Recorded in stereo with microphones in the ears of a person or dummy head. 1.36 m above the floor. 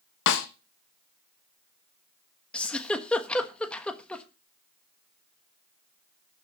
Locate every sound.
0.3 s a snare drum: 65° left (ahead or behind), 1.2 m
2.5 s a giggle: 10° left (ahead or behind), 1.2 m